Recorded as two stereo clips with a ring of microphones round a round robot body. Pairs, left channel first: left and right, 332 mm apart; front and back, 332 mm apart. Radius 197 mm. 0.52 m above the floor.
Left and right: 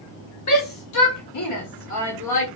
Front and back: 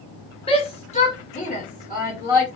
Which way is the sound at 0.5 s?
70° left.